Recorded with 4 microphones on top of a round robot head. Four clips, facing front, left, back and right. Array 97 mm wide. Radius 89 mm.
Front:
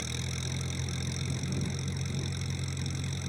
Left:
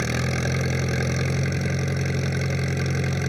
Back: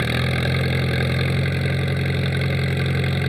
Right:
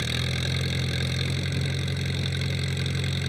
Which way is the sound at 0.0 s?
150° left.